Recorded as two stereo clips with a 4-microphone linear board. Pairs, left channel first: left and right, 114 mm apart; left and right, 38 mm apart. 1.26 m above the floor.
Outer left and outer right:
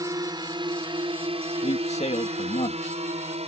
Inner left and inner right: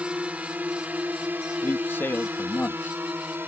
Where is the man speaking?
80° left.